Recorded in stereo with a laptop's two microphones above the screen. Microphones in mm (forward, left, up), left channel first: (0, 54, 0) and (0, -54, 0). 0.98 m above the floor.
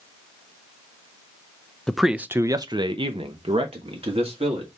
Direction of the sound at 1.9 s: 5° left (ahead or behind).